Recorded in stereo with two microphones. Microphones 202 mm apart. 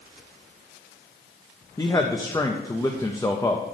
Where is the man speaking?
20° left (ahead or behind), 0.7 m.